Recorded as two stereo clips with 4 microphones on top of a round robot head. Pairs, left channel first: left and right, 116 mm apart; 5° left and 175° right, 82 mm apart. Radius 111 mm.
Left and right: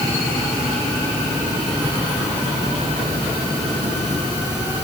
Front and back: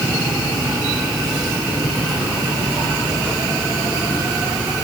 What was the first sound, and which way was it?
Only background noise.